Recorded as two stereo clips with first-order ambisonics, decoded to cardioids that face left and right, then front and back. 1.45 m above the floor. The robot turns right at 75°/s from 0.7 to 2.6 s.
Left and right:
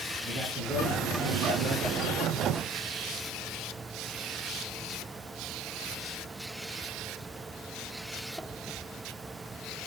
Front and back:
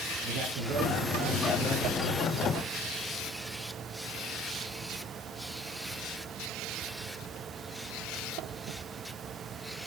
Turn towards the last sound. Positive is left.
turn(degrees=-15)